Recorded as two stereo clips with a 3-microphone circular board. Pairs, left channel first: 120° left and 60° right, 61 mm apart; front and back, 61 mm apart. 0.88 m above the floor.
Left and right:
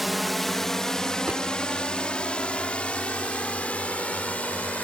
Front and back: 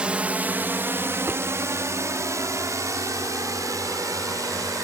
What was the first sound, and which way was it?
A drone, 145° right.